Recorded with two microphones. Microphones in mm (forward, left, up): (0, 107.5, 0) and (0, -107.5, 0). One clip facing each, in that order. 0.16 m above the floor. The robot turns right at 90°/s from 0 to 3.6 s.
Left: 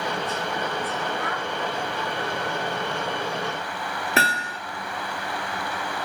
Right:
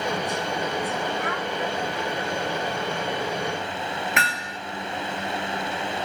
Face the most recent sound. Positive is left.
turn(degrees=30)  # may be behind; listen again after turning